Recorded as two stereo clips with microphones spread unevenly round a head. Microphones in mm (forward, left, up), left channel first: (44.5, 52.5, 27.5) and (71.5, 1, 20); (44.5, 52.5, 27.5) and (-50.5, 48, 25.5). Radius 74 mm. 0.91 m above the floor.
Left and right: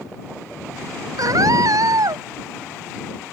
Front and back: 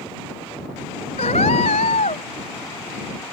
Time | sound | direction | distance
1.2 | a scream | 40° right | ?